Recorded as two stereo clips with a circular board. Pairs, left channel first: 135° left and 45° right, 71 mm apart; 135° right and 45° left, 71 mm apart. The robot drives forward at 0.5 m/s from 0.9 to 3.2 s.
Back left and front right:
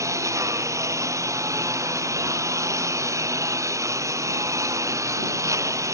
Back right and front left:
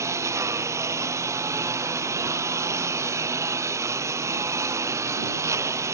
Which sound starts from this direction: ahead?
A lawn mower, at 0.0 s.